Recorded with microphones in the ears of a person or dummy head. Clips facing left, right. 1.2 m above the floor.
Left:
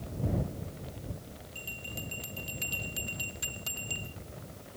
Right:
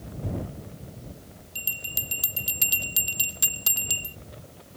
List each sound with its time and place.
1.6 s a bell: 65° right (ahead or behind)